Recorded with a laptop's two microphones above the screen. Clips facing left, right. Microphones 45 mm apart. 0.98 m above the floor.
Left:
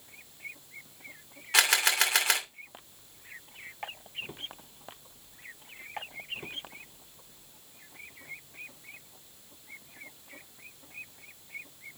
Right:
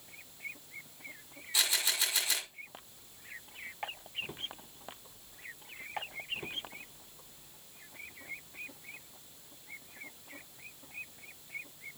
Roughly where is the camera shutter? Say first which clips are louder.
Left 8 dB; left.